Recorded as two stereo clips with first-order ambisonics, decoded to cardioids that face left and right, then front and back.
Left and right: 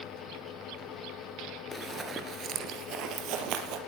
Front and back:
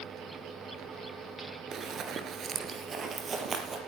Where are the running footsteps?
175° left, 1.5 m; by 3.8 s 110° right, 3 m.